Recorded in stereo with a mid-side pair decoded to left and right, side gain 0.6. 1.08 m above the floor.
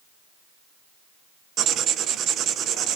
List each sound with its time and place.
1.6 s writing: 55° right, 0.8 m